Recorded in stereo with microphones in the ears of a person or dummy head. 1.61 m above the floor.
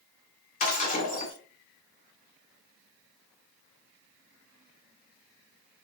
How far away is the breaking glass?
About 3 m.